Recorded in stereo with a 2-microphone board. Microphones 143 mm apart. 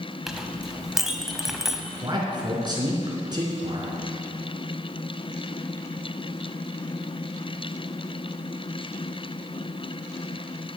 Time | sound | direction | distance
0.3 | a clink | 5° right (ahead or behind) | 0.8 m
2.0 | a man speaking | 30° right (ahead or behind) | 3 m